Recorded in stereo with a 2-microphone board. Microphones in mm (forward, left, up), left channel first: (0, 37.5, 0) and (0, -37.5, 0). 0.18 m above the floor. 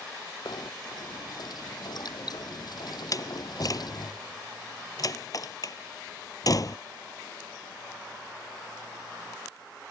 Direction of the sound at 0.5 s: 60° left (ahead or behind).